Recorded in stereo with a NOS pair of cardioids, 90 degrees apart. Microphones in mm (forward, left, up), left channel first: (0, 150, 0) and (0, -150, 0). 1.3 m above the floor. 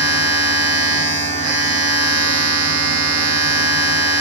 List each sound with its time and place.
0.0 s a machine running: 55° right, 0.9 m